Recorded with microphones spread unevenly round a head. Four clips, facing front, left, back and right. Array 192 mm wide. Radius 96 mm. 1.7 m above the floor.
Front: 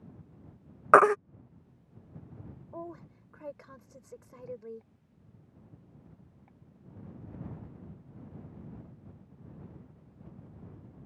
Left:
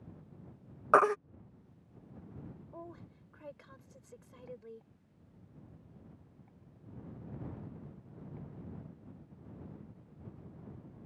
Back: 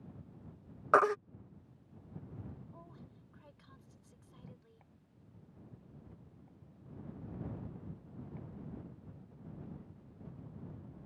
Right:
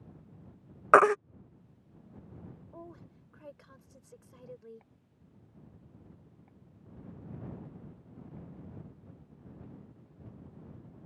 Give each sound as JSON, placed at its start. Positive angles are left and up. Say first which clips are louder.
{"t": 0.9, "sound": "a baby crying", "louder": "right 5 dB, front 8 dB", "azimuth_deg": -45}
{"t": 2.7, "sound": "a woman speaking", "louder": "even, front 12 dB", "azimuth_deg": 0}